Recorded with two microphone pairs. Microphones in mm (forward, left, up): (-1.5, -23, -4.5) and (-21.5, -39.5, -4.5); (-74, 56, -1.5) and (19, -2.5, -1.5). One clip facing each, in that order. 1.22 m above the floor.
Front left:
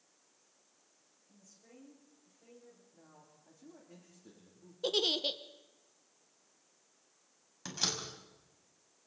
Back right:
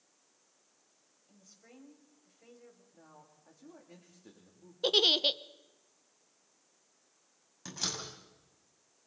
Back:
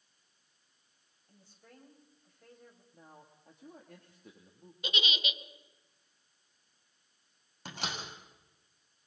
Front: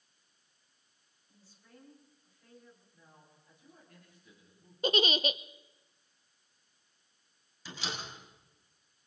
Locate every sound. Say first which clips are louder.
1.3 s a woman speaking: back right 2 dB, back 1 dB; 175° left, 6 m
2.9 s a man speaking: back right 3 dB, back 5 dB; 165° left, 2.5 m
4.8 s a giggle: back right 6 dB, front 9 dB; 80° right, 0.7 m
7.7 s a door slam: front left 2 dB, back 1 dB; 115° left, 6 m